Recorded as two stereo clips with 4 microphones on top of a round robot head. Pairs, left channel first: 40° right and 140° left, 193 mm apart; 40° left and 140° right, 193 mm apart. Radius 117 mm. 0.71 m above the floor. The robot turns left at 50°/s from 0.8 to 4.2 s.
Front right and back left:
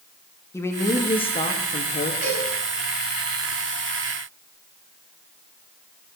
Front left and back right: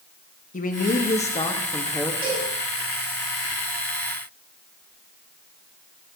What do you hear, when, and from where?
0.5 s a man speaking: 30° left, 1.3 m; by 2.1 s 40° right, 1.3 m
2.2 s a cowbell: 160° left, 5.5 m; by 2.5 s 145° left, 5.5 m